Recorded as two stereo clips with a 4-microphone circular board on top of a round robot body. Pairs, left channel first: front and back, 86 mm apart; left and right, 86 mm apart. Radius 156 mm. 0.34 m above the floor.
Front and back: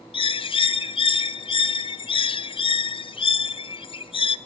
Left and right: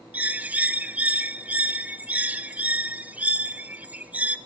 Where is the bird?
15° right, 0.8 m.